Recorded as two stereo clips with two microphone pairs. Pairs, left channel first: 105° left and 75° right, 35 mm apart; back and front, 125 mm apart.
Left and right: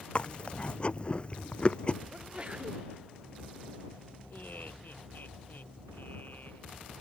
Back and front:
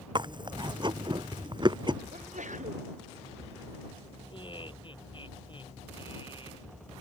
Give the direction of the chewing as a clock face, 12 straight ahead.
10 o'clock.